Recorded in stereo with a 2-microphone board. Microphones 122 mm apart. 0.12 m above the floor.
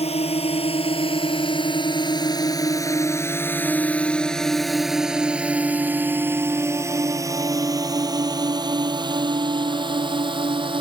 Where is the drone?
60° left (ahead or behind); by 10.8 s 45° right (ahead or behind).